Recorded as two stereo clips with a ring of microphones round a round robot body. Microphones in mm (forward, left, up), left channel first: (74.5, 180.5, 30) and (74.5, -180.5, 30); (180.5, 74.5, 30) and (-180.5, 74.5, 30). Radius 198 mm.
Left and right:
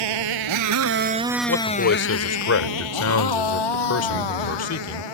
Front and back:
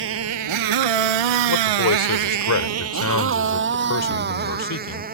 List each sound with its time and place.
0.0 s a motorcycle: 120° right; by 5.2 s 115° left
1.5 s a man speaking: 45° left